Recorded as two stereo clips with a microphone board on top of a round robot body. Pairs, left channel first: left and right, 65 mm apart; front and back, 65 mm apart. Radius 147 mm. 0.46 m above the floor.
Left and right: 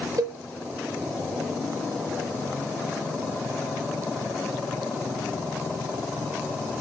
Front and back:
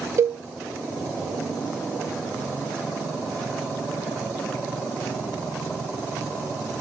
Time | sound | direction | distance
0.2 | a cowbell | 130° right | 0.6 m